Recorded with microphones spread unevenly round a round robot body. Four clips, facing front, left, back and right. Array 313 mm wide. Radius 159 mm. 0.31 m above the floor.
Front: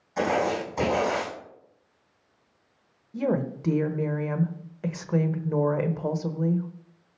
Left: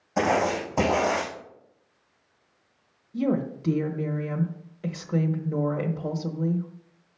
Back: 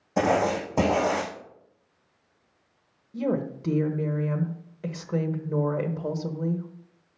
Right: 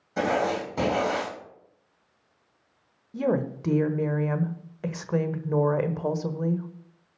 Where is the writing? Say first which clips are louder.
Left 2 dB, back 2 dB; 170° left, 4.5 m.